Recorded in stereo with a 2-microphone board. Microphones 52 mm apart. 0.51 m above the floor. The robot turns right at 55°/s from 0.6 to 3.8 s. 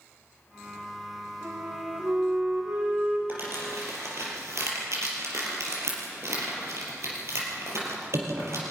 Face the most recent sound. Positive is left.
turn(degrees=-70)  # may be behind; listen again after turning